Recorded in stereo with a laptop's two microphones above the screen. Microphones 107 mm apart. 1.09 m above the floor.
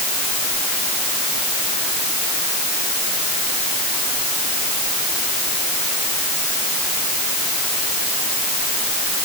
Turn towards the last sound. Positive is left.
No sound to turn to.